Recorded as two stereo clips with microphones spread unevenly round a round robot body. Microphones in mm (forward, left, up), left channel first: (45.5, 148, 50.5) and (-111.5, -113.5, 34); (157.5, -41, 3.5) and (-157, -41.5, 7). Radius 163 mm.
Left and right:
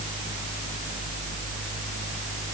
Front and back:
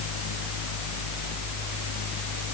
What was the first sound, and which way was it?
Only background noise.